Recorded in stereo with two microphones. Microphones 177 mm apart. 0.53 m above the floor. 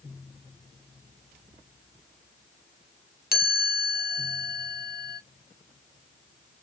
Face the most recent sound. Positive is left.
turn(degrees=65)  # may be behind; listen again after turning